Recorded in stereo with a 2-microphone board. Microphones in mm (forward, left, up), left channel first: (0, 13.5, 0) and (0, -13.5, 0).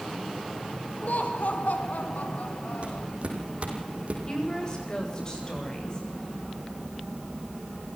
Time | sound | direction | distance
1.0 | laughter | 80° left | 4.5 m
2.8 | footsteps | 50° right (ahead or behind) | 6 m
4.3 | a woman speaking | 30° left (ahead or behind) | 9.5 m